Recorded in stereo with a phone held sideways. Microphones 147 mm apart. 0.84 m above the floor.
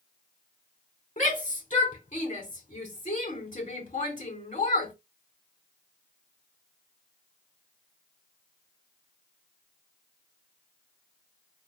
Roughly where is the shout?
Left.